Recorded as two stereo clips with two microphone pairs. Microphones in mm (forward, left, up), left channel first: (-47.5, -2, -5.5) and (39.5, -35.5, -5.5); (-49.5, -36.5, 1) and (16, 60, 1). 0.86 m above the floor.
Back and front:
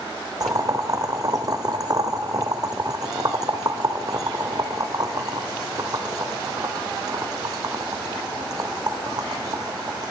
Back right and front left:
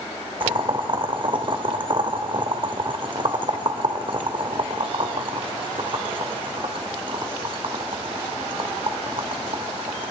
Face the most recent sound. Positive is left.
turn(degrees=20)